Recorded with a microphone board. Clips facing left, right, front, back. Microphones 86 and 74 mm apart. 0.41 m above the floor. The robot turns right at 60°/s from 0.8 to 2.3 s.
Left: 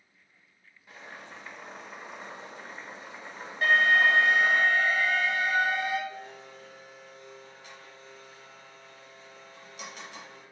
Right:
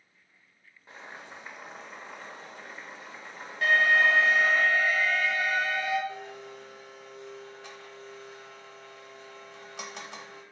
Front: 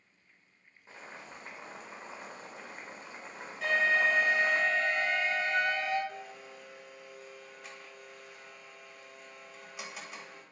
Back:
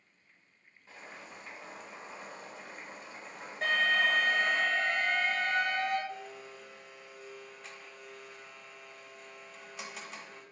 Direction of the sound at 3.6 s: 155° left.